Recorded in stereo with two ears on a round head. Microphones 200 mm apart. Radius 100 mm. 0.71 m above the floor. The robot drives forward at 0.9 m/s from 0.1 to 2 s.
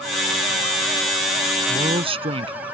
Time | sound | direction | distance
1.7 | a man speaking | 25° right (ahead or behind) | ?